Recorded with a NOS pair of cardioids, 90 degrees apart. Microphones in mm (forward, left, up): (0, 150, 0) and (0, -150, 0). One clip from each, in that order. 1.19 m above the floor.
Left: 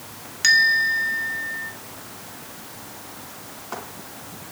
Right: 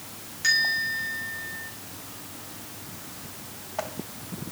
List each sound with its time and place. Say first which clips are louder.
0.4 s a bell: left 7 dB; 55° left, 1.6 m